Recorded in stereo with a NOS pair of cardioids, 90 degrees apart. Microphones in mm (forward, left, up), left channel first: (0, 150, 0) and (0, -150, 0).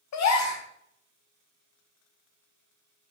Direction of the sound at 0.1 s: 60° left.